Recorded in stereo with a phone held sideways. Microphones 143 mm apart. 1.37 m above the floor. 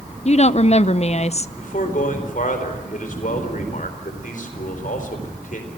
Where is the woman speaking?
50° left (ahead or behind), 0.6 m.